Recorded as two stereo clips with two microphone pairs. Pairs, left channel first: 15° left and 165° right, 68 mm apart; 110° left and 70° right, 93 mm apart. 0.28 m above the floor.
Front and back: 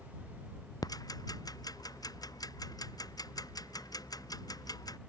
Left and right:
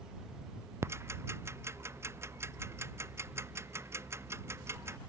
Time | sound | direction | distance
0.8 | ticking | 10° right | ?